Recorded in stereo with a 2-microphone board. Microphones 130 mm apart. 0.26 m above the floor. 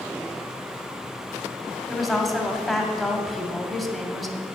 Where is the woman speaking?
Centre (ahead or behind), 1.3 m.